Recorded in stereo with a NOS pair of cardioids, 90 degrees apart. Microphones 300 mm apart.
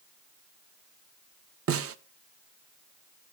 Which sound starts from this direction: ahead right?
A snare drum, at 1.7 s.